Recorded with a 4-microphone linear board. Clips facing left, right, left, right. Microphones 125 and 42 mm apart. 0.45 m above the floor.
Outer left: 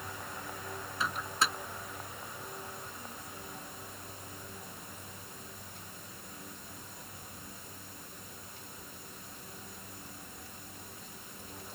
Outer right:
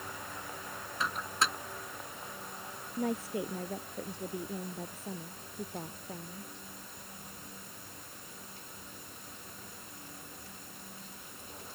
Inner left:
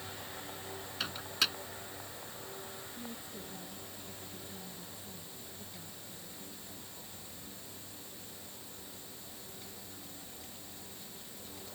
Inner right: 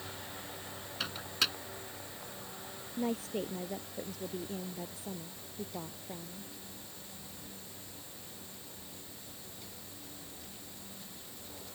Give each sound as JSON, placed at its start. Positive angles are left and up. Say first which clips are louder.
{"t": 1.0, "sound": "a microwave", "louder": "even, even", "side_deg": 0}
{"t": 3.0, "sound": "a woman speaking", "louder": "outer right 14 dB, inner right 16 dB", "side_deg": -85}